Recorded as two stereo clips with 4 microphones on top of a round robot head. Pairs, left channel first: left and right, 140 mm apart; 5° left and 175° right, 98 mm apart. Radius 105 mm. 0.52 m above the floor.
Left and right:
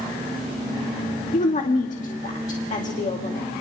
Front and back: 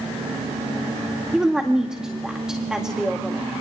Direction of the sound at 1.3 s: 105° left.